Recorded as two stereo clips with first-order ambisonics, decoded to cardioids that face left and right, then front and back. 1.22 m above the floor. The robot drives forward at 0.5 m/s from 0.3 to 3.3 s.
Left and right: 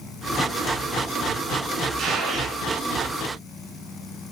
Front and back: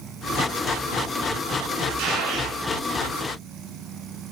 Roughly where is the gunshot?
Behind right.